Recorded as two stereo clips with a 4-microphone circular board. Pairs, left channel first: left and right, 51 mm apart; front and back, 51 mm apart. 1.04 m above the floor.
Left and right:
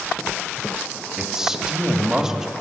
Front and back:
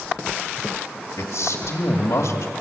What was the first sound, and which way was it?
A man speaking, 15° right.